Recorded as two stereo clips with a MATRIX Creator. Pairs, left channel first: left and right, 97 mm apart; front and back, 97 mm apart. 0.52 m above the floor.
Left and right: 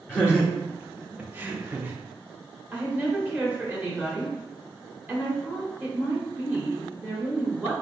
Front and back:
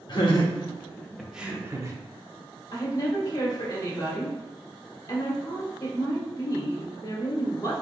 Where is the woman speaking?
30° right, 1.5 m.